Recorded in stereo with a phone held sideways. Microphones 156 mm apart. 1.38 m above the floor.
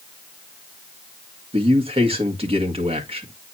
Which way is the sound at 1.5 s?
40° right (ahead or behind).